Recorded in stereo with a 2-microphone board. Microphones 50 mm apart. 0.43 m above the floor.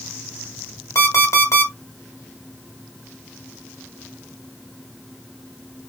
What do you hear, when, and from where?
0.9 s an alarm clock: 75° left (ahead or behind), 1.2 m